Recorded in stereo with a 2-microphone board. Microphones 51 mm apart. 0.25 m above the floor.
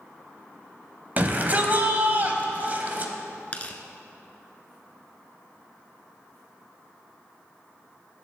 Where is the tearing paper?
25° left (ahead or behind), 0.9 m.